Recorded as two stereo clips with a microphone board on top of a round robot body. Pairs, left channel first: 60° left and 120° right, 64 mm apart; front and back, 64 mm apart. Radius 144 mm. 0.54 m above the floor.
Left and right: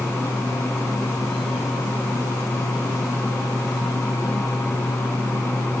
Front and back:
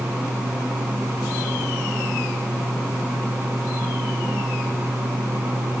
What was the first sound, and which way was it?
Only background noise.